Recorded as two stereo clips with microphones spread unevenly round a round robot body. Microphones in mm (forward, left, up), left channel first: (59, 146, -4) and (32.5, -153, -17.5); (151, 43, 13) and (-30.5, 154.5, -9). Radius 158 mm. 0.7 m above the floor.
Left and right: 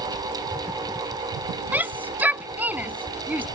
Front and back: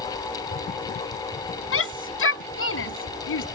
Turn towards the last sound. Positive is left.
turn(degrees=-10)